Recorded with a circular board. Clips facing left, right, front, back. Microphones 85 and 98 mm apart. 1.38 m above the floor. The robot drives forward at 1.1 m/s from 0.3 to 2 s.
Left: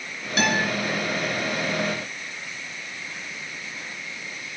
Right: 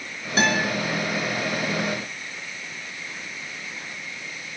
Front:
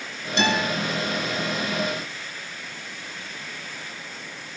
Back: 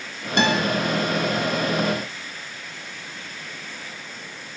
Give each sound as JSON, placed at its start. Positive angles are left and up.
{"t": 0.4, "sound": "a guitar", "azimuth_deg": -150, "distance_m": 2.0}